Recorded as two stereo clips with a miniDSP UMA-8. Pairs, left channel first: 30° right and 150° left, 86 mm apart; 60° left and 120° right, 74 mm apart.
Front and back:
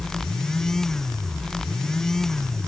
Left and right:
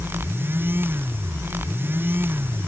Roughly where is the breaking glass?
No breaking glass in this recording.